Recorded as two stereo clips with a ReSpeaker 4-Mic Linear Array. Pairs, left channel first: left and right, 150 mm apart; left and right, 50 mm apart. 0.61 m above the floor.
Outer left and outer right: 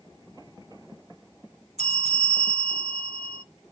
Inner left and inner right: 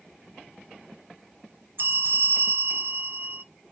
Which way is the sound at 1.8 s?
50° right (ahead or behind).